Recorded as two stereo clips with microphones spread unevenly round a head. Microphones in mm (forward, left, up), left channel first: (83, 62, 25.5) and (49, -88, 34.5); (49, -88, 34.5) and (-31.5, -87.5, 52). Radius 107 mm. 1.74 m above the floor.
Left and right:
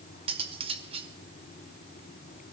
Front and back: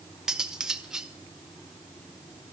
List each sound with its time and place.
0.3 s cutlery clinking: 125° right, 1.0 m